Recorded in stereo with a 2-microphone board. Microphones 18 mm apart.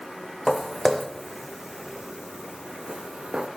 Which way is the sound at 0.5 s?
20° left (ahead or behind).